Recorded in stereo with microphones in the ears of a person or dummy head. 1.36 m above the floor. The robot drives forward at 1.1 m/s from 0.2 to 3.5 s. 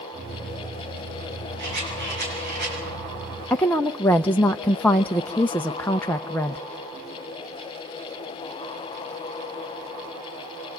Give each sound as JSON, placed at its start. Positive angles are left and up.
{"t": 1.6, "sound": "a rattle", "side_deg": -60, "distance_m": 8.0}
{"t": 3.5, "sound": "a woman speaking", "side_deg": 10, "distance_m": 0.6}